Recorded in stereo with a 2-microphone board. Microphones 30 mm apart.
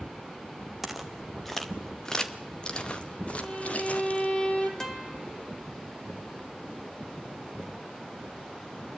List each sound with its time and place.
0.8 s footsteps: 5° right (ahead or behind), 2 m; by 4.3 s 55° left (ahead or behind), 3 m
3.4 s a violin: 45° left (ahead or behind), 4 m
4.8 s a guitar: 15° left (ahead or behind), 1.8 m